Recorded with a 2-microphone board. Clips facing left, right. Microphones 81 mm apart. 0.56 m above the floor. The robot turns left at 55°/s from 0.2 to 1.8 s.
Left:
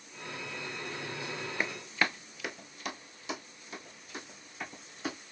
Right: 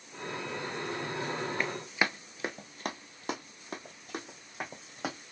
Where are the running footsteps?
5° left (ahead or behind), 0.5 m; by 5.2 s 65° right (ahead or behind), 2 m.